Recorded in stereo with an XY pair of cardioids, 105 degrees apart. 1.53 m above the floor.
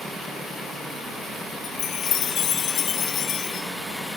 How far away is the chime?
About 1.0 m.